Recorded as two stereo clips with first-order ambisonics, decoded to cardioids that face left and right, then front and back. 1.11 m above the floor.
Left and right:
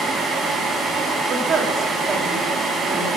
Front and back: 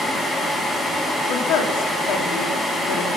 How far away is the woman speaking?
About 2 m.